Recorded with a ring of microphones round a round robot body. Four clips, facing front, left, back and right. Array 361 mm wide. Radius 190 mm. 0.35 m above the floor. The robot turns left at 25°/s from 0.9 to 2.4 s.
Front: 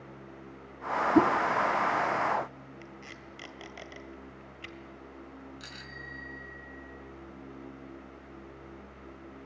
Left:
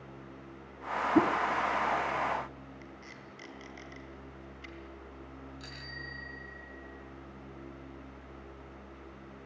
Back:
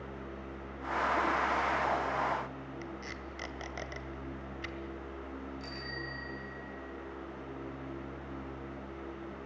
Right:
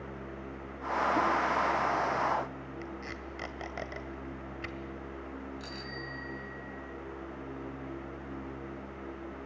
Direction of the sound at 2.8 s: 105° right.